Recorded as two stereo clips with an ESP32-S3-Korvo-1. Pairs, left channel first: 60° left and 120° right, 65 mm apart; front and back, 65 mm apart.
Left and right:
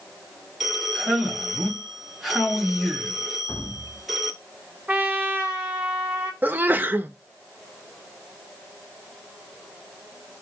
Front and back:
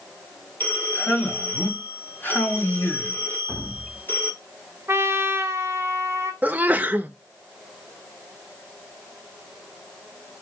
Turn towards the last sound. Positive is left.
turn(degrees=-145)